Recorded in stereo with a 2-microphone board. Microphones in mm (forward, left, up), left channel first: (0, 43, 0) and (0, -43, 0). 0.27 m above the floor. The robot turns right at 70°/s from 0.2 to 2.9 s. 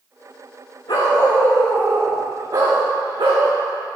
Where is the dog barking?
115° left, 7.5 m; by 3.5 s 105° right, 7.5 m.